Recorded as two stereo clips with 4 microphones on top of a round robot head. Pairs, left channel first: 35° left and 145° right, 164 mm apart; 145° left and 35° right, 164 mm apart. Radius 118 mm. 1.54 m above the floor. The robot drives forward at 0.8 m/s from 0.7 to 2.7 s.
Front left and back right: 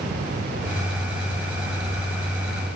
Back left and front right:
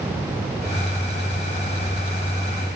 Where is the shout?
I don't hear a shout.